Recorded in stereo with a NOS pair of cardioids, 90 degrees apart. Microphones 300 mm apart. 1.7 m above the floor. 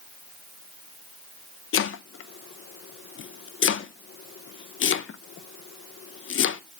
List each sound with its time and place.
1.7 s chopping: 40° left, 0.7 m